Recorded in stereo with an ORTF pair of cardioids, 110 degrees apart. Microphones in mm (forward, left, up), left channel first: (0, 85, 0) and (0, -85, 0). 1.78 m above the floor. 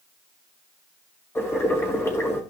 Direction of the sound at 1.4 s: 15° left.